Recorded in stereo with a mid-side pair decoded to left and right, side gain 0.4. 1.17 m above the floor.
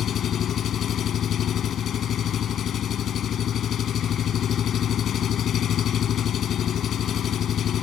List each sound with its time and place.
0.0 s an engine running: 70° left